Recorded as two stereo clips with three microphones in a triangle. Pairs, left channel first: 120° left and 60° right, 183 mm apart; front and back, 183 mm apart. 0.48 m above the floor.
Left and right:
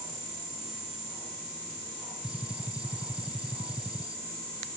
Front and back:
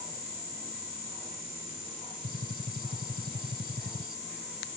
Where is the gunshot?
145° right.